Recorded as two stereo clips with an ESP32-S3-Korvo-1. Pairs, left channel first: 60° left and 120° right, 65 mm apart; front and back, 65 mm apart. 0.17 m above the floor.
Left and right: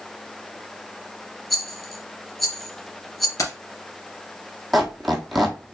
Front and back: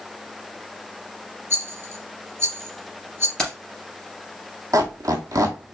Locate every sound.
1.5 s a rattle: 145° left, 2 m
3.4 s keys jangling: 75° left, 1.9 m
4.7 s a squeak: 150° left, 1.1 m